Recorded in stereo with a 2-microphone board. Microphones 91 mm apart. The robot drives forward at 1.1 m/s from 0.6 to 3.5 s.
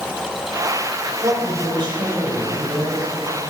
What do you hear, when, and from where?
1.2 s a woman speaking: 60° right (ahead or behind), 3.5 m; by 3.1 s 40° right (ahead or behind), 5 m